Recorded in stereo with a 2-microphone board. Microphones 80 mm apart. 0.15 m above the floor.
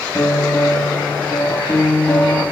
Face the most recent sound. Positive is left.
turn(degrees=25)  # may be behind; listen again after turning